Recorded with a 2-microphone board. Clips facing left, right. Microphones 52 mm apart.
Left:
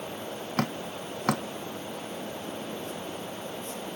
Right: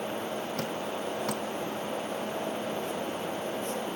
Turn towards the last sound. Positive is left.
turn(degrees=70)  # may be behind; listen again after turning